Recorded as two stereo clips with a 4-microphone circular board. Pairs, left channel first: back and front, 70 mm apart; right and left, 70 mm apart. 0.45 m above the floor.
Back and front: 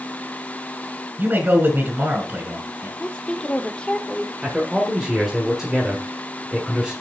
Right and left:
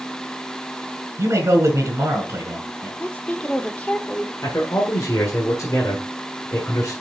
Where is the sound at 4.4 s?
80° right, 1.8 m.